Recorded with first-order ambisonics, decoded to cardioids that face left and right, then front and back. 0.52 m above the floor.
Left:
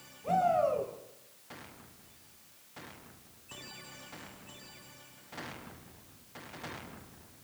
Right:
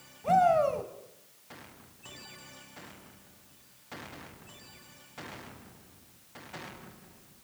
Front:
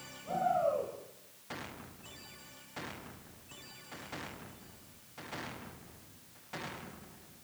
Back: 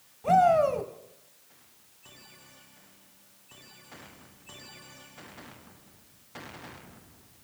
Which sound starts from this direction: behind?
A shout, at 0.2 s.